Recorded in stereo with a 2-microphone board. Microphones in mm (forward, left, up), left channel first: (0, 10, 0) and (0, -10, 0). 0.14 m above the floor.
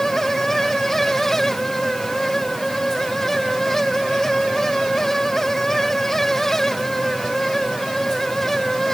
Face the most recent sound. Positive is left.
No sound to turn to.